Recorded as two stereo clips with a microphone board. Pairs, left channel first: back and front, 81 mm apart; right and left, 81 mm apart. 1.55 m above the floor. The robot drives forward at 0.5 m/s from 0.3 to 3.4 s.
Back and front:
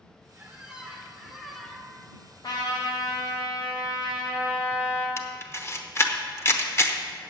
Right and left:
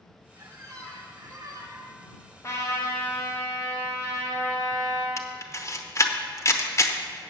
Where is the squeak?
65° left, 1.7 m; by 2.0 s 105° left, 1.6 m.